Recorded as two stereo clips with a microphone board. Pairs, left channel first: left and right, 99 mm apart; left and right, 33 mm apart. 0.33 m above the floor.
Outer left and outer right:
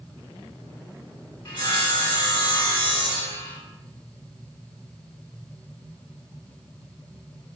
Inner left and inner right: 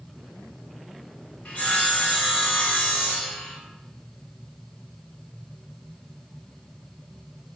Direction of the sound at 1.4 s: 50° left (ahead or behind).